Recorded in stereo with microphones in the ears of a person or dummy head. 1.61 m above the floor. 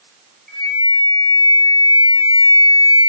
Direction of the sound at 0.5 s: 5° left (ahead or behind).